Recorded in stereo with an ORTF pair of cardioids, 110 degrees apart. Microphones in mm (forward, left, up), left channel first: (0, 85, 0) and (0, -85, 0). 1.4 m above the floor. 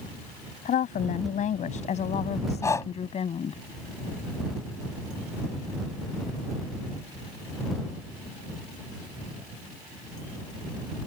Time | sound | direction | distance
0.7 | a woman speaking | 55° left | ?
2.6 | breathing | 20° left | ?